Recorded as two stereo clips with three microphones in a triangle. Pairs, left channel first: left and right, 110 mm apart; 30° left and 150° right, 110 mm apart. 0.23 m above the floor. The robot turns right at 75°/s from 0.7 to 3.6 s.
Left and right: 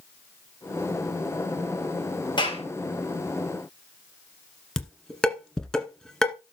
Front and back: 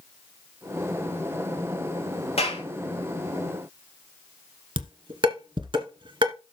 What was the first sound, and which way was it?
A clap, 45° left.